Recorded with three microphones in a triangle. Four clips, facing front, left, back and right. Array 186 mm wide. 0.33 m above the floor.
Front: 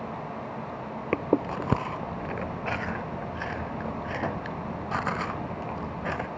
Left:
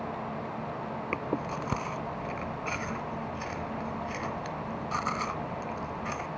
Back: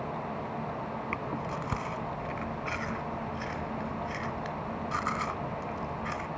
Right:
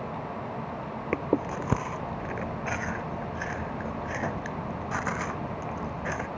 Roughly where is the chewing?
Ahead.